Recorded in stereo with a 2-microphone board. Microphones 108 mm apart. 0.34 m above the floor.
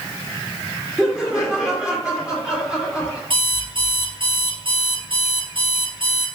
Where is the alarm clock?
55° right (ahead or behind), 5 m.